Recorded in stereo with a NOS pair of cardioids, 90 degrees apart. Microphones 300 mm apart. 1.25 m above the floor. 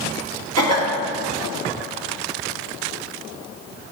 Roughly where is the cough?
Ahead right.